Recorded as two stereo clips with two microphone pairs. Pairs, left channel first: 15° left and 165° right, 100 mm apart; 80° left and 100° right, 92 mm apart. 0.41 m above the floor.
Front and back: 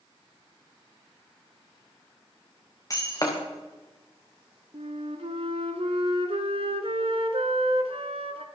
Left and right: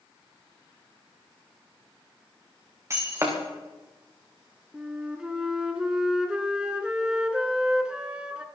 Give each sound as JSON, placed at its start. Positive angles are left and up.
{"t": 2.9, "sound": "breaking glass", "azimuth_deg": -40, "distance_m": 4.5}
{"t": 4.7, "sound": "a flute", "azimuth_deg": 175, "distance_m": 1.5}